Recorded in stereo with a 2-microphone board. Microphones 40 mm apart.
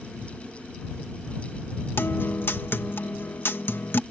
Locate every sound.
2.0 s a guitar: 70° left (ahead or behind)